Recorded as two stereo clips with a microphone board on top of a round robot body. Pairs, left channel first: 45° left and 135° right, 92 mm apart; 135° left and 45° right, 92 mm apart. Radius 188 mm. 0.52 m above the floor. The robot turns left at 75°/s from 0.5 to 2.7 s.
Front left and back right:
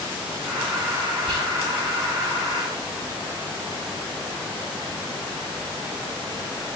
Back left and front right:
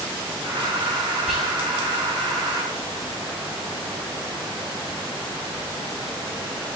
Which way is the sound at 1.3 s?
130° right.